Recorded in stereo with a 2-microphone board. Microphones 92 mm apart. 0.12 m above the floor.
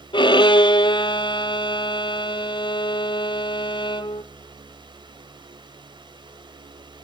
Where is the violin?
60° left (ahead or behind), 0.8 m.